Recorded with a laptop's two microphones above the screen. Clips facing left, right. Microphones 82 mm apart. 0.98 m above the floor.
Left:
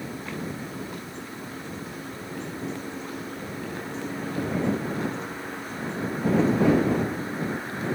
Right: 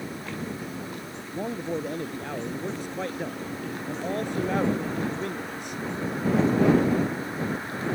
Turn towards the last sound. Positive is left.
turn(degrees=-90)